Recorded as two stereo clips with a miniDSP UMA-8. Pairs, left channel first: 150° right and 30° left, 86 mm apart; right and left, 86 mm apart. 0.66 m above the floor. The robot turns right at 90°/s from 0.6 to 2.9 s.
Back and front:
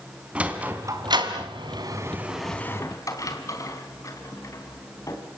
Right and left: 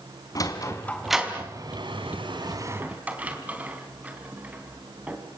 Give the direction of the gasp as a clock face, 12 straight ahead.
I don't hear a gasp.